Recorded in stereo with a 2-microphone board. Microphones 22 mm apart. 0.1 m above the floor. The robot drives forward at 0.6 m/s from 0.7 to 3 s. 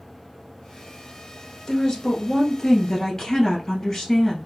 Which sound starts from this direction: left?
A woman speaking, at 1.7 s.